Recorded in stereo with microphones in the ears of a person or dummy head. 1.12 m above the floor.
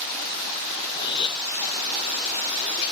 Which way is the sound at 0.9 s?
25° left (ahead or behind).